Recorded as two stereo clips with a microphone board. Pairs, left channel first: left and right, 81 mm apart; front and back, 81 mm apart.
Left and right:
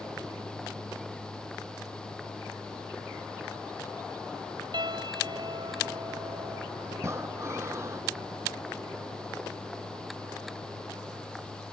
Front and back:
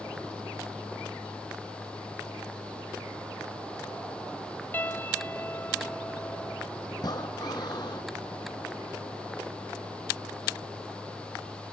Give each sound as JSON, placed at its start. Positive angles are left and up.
{"t": 4.7, "sound": "a piano", "azimuth_deg": -65}
{"t": 7.0, "sound": "breathing", "azimuth_deg": -35}